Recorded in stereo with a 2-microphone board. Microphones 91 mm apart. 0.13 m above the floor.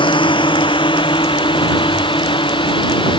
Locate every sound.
0.0 s a drone: 65° left (ahead or behind)